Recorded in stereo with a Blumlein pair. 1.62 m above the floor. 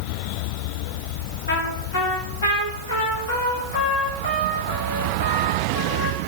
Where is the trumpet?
70° left, 2 m.